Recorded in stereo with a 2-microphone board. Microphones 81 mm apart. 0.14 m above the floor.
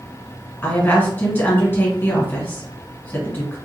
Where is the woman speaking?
25° left (ahead or behind), 1.4 m.